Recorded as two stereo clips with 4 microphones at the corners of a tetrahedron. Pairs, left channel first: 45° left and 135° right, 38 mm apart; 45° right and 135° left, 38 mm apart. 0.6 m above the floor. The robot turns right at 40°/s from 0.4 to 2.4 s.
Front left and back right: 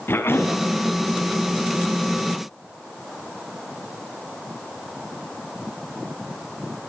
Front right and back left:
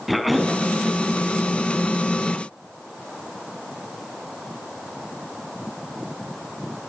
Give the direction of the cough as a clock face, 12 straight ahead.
10 o'clock.